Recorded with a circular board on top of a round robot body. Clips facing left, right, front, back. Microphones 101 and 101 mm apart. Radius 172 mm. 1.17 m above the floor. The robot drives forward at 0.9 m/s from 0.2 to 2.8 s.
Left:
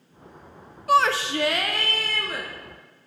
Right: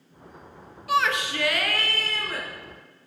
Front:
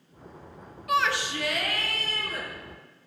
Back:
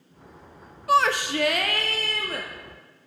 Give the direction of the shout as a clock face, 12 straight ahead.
8 o'clock.